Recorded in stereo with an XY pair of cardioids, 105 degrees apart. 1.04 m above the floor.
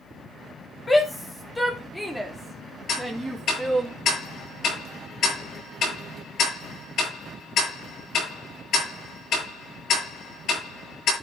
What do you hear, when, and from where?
0.9 s a shout: 30° left, 2.5 m; by 3.9 s 10° right, 3 m
2.9 s ticking: 65° left, 7.5 m